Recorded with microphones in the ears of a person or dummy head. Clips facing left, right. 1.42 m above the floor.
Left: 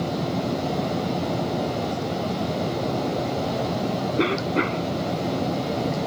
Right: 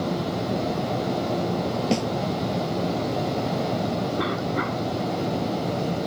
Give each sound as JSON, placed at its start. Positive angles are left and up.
{"t": 1.9, "sound": "a snare drum", "side_deg": -75}
{"t": 4.2, "sound": "a cough", "side_deg": 40}